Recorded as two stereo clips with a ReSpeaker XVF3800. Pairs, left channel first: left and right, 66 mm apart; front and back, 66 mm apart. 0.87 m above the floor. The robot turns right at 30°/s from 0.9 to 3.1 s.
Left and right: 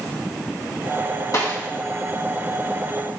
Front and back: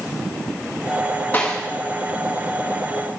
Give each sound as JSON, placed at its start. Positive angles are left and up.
{"t": 1.3, "sound": "a snare drum", "azimuth_deg": 60, "distance_m": 2.0}